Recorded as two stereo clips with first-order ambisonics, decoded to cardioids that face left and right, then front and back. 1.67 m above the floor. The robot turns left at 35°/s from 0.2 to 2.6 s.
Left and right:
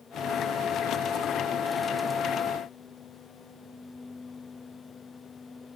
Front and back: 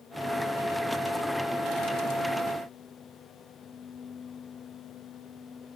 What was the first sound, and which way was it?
Only background noise.